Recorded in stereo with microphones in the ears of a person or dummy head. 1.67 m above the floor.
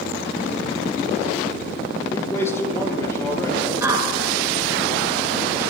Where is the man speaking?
15° left (ahead or behind), 4.5 m.